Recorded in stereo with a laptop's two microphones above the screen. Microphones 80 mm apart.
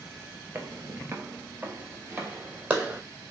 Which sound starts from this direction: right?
Footsteps, at 0.6 s.